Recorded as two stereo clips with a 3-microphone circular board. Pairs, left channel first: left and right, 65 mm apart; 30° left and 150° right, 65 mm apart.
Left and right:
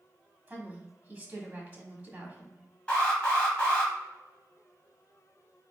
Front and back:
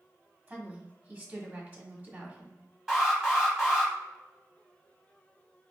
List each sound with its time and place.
0.5 s a woman speaking: 125° right, 1.3 m
2.9 s an alarm: 140° left, 1.8 m